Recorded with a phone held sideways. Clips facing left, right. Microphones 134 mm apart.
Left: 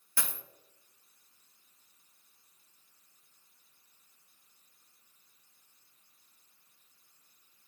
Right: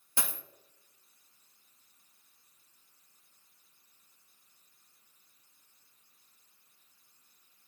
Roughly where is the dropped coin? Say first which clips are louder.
Right 2 dB; right.